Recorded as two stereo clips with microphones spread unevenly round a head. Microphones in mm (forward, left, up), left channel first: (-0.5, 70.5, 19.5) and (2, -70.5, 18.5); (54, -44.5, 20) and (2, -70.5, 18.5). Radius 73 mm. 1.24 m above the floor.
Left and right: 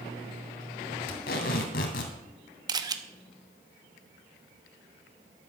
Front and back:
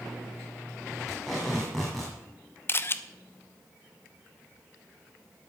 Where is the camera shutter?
25° right, 0.9 m.